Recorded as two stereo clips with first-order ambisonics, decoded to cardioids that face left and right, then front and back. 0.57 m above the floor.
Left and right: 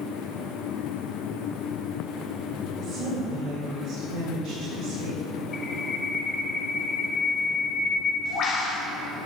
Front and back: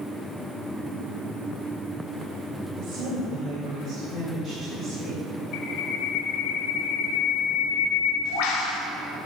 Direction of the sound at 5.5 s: 30° left.